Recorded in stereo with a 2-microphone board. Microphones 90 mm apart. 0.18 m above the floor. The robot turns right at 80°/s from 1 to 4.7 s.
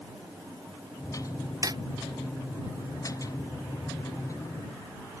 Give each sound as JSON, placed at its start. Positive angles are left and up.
{"t": 1.6, "sound": "hammering", "side_deg": -35}